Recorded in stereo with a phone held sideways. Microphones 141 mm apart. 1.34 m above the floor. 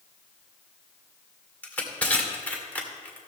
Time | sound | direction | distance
1.6 | crushing | 10° left (ahead or behind) | 1.8 m